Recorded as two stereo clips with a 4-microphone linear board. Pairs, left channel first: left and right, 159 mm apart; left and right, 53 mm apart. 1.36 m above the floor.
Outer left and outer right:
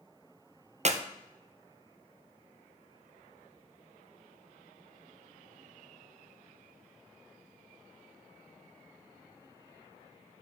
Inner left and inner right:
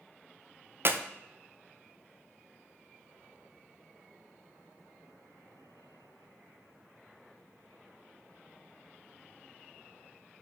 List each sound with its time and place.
0.8 s a clap: 50° right (ahead or behind), 0.5 m